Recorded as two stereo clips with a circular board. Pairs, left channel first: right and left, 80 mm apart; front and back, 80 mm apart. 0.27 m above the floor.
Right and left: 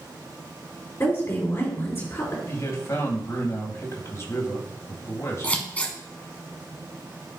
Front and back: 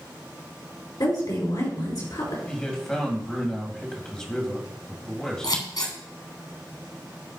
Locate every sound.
1.0 s a woman speaking: 30° right, 4.5 m
2.5 s a man speaking: 75° right, 2.0 m
5.4 s scissors: 20° right, 1.5 m